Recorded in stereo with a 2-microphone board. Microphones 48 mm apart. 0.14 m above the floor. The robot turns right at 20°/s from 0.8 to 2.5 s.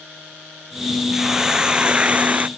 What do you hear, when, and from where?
1.1 s a hiss: 5° right (ahead or behind); by 2.5 s 35° right (ahead or behind)